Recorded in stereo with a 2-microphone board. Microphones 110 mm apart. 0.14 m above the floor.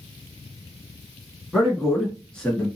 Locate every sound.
1.5 s a man speaking: 5° right (ahead or behind), 1.3 m; by 2.7 s 10° left (ahead or behind), 1.7 m